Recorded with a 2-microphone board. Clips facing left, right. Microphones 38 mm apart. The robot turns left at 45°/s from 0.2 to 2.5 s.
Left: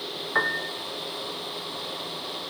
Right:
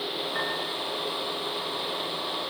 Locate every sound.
0.3 s a piano: 35° left (ahead or behind), 5.5 m; by 0.7 s 50° left (ahead or behind), 5.5 m